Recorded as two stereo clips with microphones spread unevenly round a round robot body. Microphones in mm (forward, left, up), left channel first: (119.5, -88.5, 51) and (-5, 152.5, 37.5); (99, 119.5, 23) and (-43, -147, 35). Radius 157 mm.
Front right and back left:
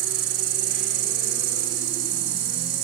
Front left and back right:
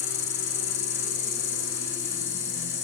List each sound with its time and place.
0.0 s an insect: 105° left, 6 m